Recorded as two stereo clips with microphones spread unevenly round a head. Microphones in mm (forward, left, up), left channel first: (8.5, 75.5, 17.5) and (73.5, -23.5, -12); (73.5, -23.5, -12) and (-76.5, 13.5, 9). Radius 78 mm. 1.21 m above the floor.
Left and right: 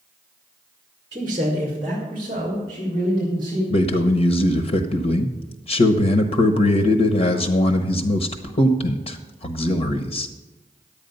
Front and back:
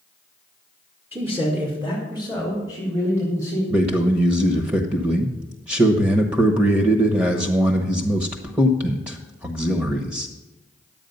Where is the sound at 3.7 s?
90° left, 1.0 m.